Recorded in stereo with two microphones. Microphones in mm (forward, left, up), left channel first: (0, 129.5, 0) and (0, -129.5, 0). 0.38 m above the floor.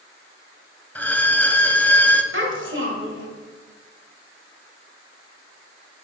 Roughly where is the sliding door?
No sliding door in this recording.